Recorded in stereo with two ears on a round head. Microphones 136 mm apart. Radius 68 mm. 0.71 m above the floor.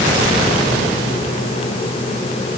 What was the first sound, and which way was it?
Only background noise.